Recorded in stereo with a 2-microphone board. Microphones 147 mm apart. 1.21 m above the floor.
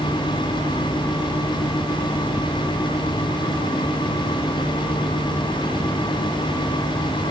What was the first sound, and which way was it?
Only background noise.